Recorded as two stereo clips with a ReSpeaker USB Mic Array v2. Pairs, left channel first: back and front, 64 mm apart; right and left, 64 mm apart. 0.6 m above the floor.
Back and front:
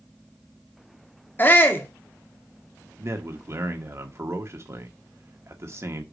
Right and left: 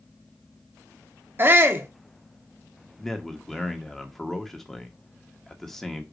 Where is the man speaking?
5° right, 1.3 m.